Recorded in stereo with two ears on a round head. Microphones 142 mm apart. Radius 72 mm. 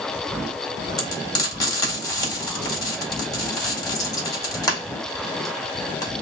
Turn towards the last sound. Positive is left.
turn(degrees=25)  # may be behind; listen again after turning